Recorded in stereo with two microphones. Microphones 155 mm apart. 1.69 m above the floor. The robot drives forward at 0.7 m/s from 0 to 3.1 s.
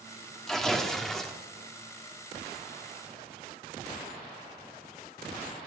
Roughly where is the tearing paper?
Centre.